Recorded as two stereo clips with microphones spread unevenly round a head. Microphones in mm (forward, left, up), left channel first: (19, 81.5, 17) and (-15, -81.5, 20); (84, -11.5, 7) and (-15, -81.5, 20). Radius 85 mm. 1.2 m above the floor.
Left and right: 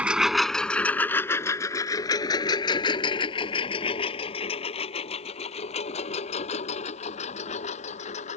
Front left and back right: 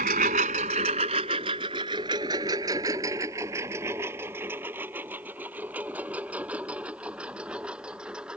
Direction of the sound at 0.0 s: 175° left.